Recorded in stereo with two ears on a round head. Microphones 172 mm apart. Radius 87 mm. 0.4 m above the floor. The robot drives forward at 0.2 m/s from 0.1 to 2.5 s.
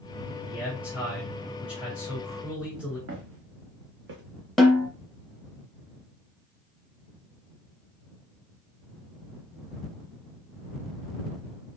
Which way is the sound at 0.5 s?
5° right (ahead or behind).